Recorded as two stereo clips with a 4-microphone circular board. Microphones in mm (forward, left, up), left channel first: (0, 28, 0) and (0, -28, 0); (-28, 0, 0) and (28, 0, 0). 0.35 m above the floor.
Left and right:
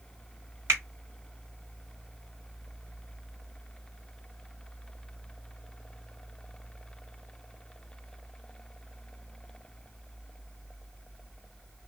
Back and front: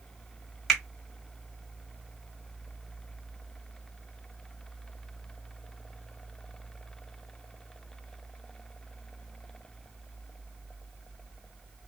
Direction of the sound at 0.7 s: 95° right.